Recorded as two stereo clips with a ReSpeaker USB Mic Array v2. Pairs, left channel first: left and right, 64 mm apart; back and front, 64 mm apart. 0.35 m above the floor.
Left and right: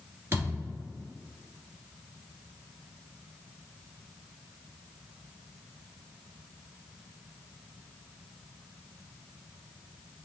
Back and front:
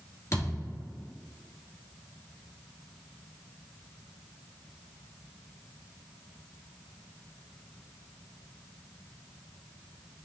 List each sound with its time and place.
0.3 s a thud: 145° right, 1.2 m